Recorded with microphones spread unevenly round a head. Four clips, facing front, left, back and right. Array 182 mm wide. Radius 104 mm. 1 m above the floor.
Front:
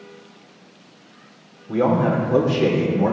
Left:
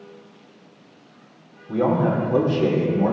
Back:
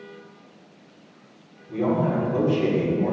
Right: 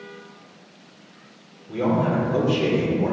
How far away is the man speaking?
About 3 m.